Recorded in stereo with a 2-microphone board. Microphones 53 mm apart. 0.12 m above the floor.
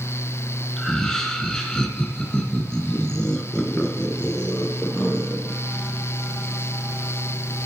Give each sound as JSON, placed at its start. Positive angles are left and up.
{"t": 0.8, "sound": "laughter", "side_deg": 10, "distance_m": 1.4}